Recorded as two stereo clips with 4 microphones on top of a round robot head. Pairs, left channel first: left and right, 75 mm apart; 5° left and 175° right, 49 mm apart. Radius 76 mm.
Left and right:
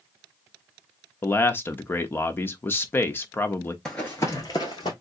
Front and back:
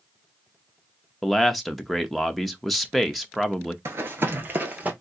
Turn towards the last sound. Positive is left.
turn(degrees=130)